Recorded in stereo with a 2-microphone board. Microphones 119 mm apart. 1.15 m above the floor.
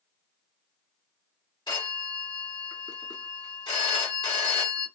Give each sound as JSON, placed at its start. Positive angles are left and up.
{"t": 1.7, "sound": "a phone ringing", "side_deg": 40, "distance_m": 1.2}